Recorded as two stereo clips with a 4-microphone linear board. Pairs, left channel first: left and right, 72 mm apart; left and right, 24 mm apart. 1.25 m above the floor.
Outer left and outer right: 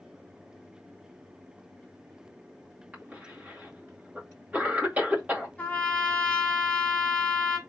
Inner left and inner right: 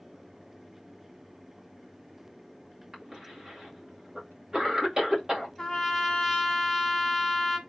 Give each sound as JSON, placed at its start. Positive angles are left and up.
{"t": 2.9, "sound": "a cough", "side_deg": -20, "distance_m": 2.0}
{"t": 5.6, "sound": "a trumpet", "side_deg": 20, "distance_m": 1.5}